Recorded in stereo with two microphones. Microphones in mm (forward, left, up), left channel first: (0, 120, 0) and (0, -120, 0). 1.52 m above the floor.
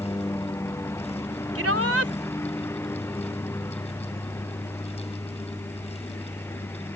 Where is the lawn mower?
10° left (ahead or behind).